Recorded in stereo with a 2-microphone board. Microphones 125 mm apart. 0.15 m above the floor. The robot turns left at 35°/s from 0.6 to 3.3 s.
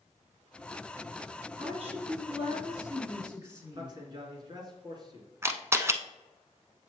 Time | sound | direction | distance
1.6 | a woman speaking | 90° right | 2.5 m
3.7 | a man speaking | 35° right (ahead or behind) | 2 m
5.4 | a camera shutter | 20° right (ahead or behind) | 0.6 m